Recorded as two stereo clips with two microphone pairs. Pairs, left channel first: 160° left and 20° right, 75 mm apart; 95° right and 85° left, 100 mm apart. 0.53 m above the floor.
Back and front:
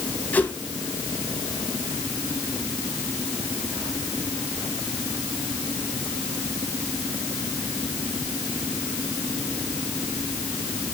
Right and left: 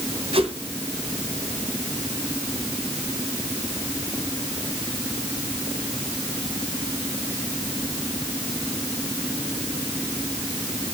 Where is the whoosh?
95° left, 2 m.